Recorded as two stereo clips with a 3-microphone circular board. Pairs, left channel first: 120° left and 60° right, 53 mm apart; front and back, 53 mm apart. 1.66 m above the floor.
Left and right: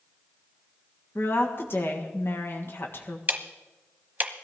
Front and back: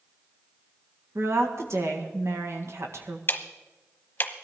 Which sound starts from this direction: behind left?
A woman speaking, at 1.1 s.